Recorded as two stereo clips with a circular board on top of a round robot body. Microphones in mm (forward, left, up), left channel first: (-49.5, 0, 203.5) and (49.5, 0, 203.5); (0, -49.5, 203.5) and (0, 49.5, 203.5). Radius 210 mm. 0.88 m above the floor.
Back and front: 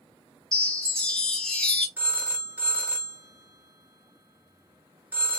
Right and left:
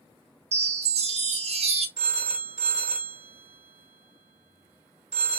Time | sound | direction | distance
0.5 | a chime | 95° left | 0.9 m
2.0 | a phone ringing | 75° left | 1.2 m